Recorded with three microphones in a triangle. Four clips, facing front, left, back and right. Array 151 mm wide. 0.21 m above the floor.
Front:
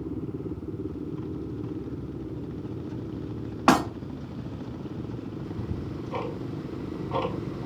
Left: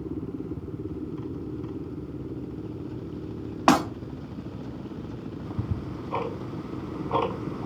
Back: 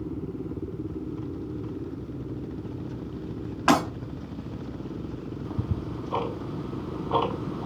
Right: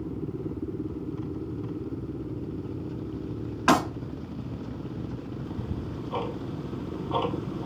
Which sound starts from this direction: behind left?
Ticking, at 5.4 s.